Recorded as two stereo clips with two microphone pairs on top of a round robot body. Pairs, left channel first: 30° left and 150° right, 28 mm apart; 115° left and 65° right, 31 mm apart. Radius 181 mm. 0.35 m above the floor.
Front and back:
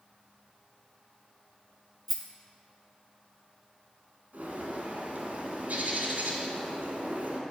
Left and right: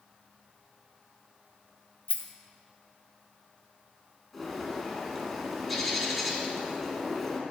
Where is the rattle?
125° left, 0.9 m.